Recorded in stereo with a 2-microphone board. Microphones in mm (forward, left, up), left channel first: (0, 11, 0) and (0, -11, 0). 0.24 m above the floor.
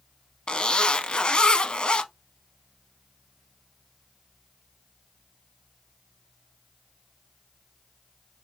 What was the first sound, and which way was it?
A zipper, 55° left (ahead or behind).